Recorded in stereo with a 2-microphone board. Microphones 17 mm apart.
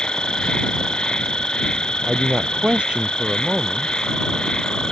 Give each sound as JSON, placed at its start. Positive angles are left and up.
{"t": 0.0, "sound": "an insect", "side_deg": 60}
{"t": 2.1, "sound": "a man speaking", "side_deg": -75}